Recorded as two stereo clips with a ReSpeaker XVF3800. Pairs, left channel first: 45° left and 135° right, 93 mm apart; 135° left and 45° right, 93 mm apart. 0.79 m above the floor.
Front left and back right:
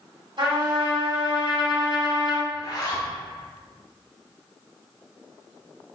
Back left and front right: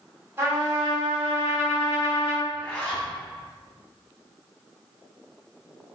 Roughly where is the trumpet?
Right.